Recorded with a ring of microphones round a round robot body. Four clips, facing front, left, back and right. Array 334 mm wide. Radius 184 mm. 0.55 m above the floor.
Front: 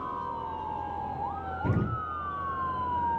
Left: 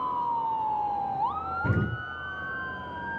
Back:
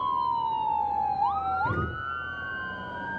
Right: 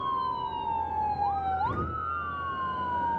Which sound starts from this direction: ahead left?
An explosion, at 1.6 s.